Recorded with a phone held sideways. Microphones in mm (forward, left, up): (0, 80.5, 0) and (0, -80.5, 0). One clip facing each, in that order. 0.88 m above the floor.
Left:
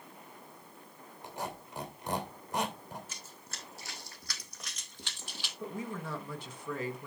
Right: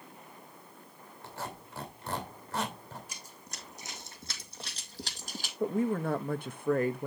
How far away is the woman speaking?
About 0.9 m.